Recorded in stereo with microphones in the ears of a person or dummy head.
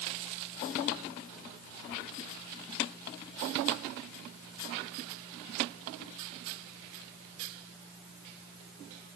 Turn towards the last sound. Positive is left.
No sound to turn to.